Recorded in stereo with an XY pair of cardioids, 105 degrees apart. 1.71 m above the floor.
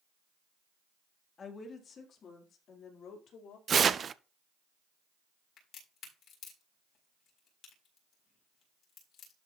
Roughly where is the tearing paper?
Ahead right.